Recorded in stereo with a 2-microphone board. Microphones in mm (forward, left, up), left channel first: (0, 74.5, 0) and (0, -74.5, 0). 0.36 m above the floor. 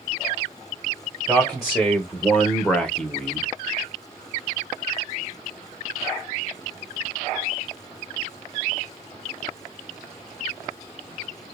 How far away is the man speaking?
About 1.3 m.